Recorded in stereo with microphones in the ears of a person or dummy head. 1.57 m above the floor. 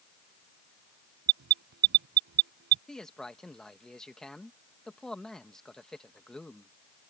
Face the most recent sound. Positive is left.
turn(degrees=0)  # may be behind; listen again after turning